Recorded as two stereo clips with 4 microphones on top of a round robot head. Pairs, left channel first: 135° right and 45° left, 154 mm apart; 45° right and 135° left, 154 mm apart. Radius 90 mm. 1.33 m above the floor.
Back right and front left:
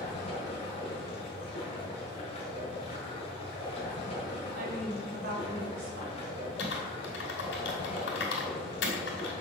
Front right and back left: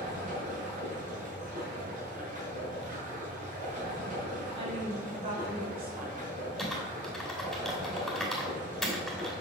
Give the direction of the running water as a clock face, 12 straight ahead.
6 o'clock.